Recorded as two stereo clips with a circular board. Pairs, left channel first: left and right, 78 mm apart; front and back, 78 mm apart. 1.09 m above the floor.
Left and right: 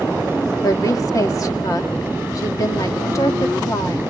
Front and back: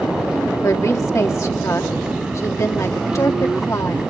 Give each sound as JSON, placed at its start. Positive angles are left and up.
{"t": 0.6, "sound": "a woman speaking", "azimuth_deg": 50, "distance_m": 2.0}